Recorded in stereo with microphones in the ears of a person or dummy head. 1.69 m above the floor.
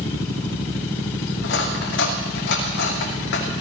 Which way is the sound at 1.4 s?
65° left (ahead or behind).